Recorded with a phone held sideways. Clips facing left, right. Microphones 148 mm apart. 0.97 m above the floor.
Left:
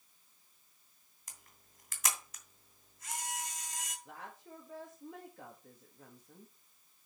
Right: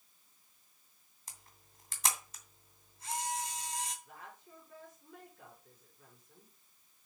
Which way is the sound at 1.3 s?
30° right (ahead or behind).